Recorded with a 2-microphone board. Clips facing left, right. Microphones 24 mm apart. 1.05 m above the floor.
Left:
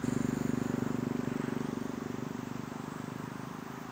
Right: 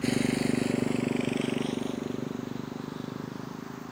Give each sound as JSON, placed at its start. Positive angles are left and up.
{"t": 0.0, "sound": "a motorcycle", "side_deg": -65}